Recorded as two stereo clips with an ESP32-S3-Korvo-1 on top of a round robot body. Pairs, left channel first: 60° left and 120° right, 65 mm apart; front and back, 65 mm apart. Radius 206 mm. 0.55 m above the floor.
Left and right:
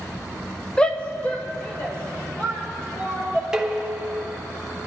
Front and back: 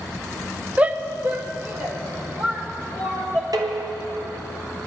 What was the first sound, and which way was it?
A shout, 125° left.